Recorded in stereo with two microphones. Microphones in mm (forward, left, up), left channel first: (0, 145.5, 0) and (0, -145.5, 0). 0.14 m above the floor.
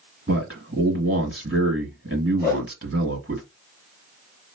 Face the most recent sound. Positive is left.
turn(degrees=30)  # may be behind; listen again after turning